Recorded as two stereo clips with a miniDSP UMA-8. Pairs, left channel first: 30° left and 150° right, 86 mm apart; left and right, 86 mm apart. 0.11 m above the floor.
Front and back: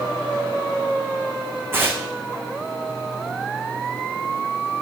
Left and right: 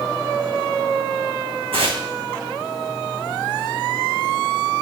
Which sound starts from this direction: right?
Tearing paper, at 1.7 s.